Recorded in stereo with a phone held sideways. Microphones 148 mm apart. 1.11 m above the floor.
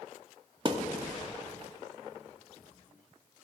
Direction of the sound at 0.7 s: 35° right (ahead or behind).